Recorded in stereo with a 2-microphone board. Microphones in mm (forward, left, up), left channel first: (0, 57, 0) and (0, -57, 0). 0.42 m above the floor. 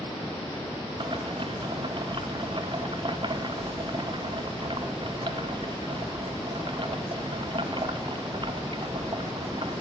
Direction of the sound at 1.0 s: 45° right (ahead or behind).